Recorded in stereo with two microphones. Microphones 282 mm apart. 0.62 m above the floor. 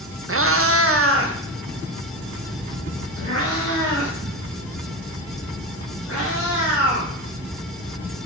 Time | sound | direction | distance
0.3 | a cat meowing | 50° right (ahead or behind) | 0.6 m